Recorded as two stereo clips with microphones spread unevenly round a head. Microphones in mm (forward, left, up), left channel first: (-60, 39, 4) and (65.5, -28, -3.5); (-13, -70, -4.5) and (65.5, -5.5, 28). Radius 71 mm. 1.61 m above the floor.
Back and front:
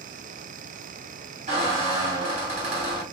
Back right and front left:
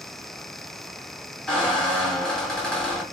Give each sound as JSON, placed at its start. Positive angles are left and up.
{"t": 1.5, "sound": "a squeak", "azimuth_deg": -45, "distance_m": 1.2}